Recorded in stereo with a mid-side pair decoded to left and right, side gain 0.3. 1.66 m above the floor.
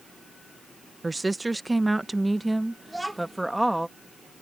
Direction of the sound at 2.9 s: 10° right.